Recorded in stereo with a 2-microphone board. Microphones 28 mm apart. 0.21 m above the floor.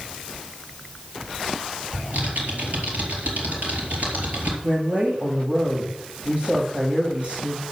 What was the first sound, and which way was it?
Typing on a keyboard, 70° right (ahead or behind).